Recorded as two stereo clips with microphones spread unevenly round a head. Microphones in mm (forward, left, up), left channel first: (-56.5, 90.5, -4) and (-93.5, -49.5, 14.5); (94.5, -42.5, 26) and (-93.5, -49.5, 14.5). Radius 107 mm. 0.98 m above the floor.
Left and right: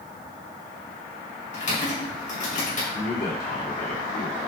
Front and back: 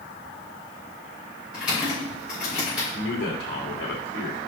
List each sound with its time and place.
1.5 s typing on a keyboard: 95° left, 3.5 m
2.9 s a man speaking: 50° left, 2 m